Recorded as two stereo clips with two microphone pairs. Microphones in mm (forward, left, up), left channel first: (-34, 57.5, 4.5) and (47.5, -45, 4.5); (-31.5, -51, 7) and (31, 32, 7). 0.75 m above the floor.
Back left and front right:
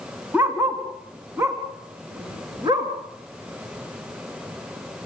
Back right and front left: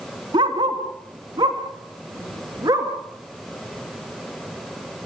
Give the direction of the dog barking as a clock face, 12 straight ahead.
11 o'clock.